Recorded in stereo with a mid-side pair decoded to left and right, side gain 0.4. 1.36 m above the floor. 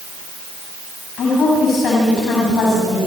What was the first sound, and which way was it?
A woman speaking, 70° left.